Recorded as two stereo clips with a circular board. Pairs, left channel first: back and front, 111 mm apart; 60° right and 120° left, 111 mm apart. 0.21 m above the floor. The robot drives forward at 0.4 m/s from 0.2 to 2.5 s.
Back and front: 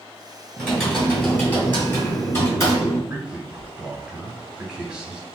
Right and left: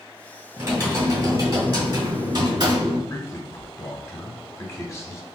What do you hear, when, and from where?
0.6 s typing on a keyboard: 95° left, 1.8 m; by 3.0 s 130° left, 2 m
3.1 s a man speaking: 75° right, 1.1 m